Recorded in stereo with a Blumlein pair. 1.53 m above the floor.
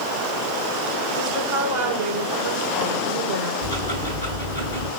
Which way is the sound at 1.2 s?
35° right.